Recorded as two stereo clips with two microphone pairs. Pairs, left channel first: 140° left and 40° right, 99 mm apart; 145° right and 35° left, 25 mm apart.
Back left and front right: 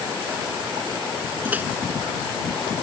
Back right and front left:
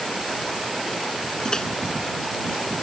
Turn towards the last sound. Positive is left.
turn(degrees=-105)